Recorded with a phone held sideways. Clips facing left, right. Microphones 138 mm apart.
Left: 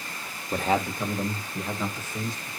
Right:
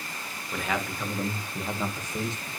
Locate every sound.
0.5 s a man speaking: 40° left (ahead or behind), 1.5 m; by 2.5 s 25° right (ahead or behind), 1.9 m